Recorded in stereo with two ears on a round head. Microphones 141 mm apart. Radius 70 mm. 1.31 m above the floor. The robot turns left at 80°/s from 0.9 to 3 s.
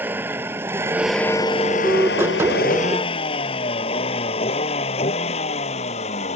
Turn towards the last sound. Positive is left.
turn(degrees=45)  # may be behind; listen again after turning